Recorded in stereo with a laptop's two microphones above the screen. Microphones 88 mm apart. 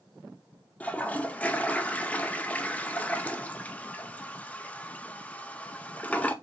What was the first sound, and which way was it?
A toilet flushing, 15° left (ahead or behind).